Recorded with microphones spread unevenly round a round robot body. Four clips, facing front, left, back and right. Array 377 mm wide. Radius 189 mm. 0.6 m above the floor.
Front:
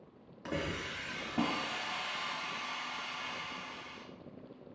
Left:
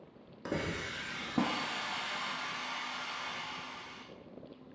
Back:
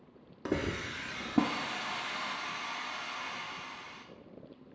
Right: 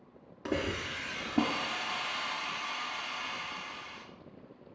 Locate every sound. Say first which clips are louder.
0.5 s a hiss: right 3 dB, back 4 dB; 175° right, 1.5 m